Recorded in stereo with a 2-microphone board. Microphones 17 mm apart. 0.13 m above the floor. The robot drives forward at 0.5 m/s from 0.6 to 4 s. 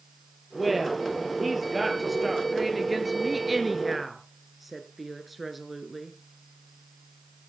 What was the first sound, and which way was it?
A woman speaking, 5° right (ahead or behind).